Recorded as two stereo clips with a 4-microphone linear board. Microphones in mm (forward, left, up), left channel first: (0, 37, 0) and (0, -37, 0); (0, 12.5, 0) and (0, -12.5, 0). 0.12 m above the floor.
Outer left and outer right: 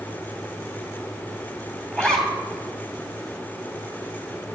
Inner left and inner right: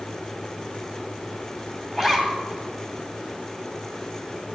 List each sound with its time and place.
1.9 s a zipper: 10° left (ahead or behind), 2.5 m